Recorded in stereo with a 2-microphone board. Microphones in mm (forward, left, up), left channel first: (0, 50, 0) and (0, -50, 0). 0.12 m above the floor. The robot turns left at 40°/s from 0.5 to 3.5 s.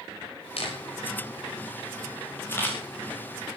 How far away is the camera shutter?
About 8 m.